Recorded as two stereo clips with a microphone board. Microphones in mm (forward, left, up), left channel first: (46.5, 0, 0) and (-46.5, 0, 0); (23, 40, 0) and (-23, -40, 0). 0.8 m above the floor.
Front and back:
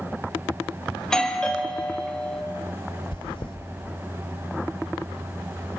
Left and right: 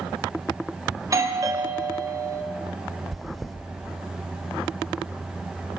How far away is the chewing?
About 1.5 m.